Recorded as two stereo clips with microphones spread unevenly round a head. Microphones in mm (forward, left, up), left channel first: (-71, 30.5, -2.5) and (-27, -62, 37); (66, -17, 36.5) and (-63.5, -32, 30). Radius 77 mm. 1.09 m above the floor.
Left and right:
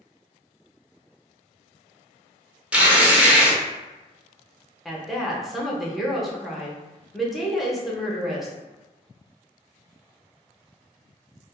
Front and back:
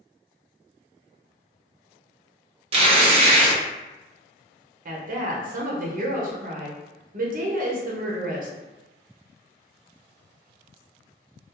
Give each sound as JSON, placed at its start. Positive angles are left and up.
{"t": 2.7, "sound": "tearing paper", "azimuth_deg": -160, "distance_m": 0.8}
{"t": 4.8, "sound": "a woman speaking", "azimuth_deg": -160, "distance_m": 0.8}